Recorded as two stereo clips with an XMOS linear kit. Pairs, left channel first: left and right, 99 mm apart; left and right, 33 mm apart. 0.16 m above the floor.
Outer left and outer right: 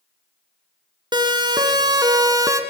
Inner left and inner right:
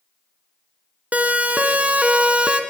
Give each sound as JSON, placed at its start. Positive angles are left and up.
{"t": 1.1, "sound": "a siren", "side_deg": -50, "distance_m": 2.0}